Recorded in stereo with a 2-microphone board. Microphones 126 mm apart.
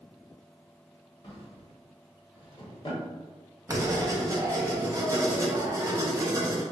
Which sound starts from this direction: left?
A drawer, at 1.2 s.